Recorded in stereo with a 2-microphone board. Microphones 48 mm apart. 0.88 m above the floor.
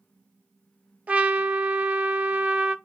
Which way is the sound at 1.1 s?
35° right (ahead or behind).